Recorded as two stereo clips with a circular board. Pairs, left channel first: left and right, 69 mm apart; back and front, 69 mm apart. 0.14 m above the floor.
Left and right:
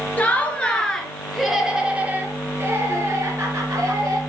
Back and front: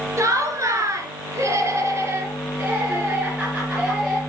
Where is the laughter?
30° left, 3 m; by 4.2 s 75° right, 3.5 m.